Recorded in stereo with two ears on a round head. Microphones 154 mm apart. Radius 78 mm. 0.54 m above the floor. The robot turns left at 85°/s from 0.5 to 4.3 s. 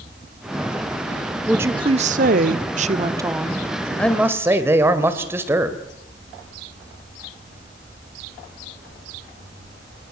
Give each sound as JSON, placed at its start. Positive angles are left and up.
{"t": 1.5, "sound": "a woman speaking", "azimuth_deg": -5, "distance_m": 1.2}
{"t": 4.0, "sound": "a man speaking", "side_deg": 10, "distance_m": 2.5}